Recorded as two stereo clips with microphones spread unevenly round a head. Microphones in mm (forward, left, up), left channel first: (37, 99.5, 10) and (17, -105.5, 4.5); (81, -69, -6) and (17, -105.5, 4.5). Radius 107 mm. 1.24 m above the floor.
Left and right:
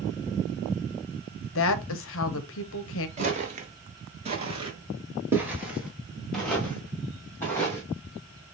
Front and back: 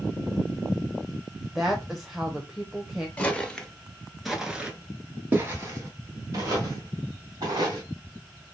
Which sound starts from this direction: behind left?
A woman speaking, at 1.6 s.